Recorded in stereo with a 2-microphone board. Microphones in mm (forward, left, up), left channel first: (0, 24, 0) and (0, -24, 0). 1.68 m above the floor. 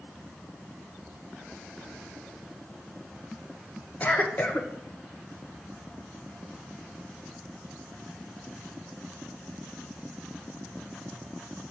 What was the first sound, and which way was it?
A cough, 30° left (ahead or behind).